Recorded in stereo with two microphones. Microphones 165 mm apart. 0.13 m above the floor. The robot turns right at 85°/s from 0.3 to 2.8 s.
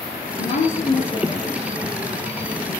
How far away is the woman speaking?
About 2.5 m.